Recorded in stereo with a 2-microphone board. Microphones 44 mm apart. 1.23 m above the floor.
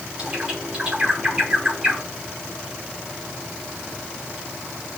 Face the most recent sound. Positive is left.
turn(degrees=-25)  # may be behind; listen again after turning